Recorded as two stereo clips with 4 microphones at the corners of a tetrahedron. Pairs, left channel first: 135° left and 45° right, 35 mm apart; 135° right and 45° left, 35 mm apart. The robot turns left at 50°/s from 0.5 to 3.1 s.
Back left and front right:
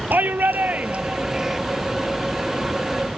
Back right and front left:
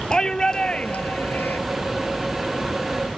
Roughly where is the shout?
Right.